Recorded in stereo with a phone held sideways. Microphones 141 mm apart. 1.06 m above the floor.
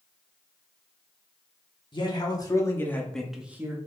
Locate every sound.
1.9 s a man speaking: 35° left (ahead or behind), 2 m; by 3.8 s 20° right (ahead or behind), 1.2 m